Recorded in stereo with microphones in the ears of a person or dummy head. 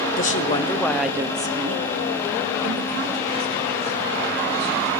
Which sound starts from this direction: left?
A woman speaking, at 0.2 s.